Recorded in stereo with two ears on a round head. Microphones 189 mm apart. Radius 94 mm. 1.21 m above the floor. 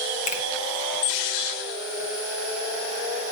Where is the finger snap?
35° left (ahead or behind), 1.2 m.